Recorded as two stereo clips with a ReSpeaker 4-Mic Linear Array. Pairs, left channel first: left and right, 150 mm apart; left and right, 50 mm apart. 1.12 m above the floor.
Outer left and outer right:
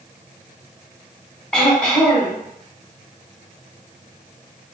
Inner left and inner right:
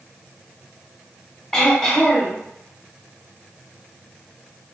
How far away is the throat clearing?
About 1.1 m.